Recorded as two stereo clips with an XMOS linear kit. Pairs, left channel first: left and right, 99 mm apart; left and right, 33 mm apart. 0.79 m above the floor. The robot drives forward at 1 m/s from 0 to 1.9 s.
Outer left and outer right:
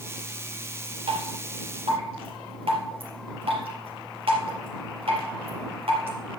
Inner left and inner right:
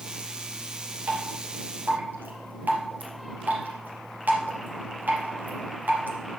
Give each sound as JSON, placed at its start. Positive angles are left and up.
{"t": 1.1, "sound": "dripping", "side_deg": -75, "distance_m": 4.0}